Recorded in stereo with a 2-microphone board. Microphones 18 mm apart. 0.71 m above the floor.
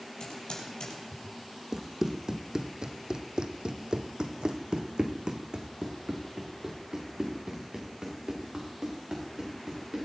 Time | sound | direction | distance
0.2 | typing on a keyboard | 55° left (ahead or behind) | 5.5 m
1.7 | running footsteps | 25° right (ahead or behind) | 1.7 m